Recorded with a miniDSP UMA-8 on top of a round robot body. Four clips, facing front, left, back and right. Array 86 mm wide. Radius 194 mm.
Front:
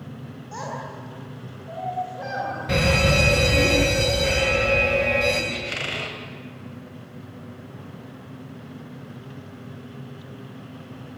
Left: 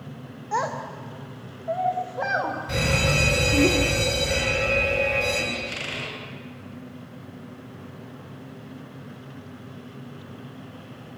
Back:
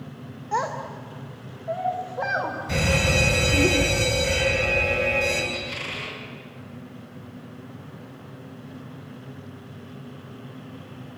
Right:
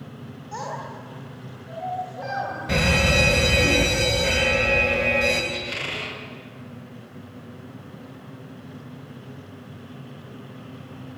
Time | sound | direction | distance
0.5 | a child speaking | 130° left | 2.5 m
2.7 | a fire alarm | 30° right | 8.5 m
5.5 | a squeak | 10° right | 4 m